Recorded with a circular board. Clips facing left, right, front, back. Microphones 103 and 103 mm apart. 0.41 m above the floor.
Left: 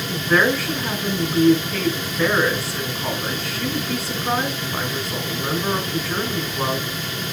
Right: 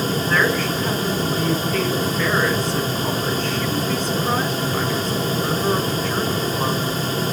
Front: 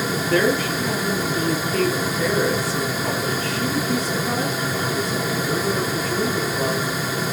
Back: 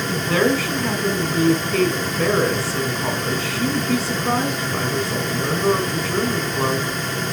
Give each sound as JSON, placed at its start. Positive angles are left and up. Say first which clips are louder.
{"t": 0.1, "sound": "a woman speaking", "louder": "left 4 dB, back 1 dB", "azimuth_deg": 180, "distance_m": 3.5}